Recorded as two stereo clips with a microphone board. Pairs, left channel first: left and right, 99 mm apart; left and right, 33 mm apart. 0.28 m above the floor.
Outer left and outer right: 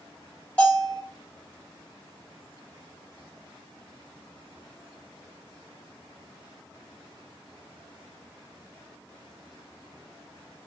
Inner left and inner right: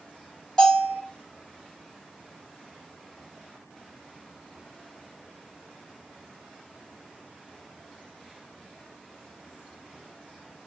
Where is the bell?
15° left (ahead or behind), 1.9 m.